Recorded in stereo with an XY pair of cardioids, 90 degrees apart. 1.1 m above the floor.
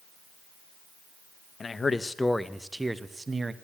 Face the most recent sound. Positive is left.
turn(degrees=-35)